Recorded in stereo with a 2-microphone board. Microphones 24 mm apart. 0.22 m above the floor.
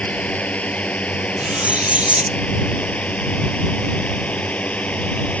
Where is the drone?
70° left (ahead or behind).